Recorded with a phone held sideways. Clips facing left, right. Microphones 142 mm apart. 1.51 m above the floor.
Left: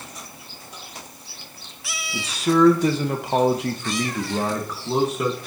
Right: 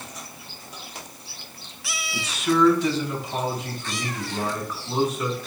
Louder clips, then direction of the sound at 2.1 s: Left 3 dB; 30° left (ahead or behind).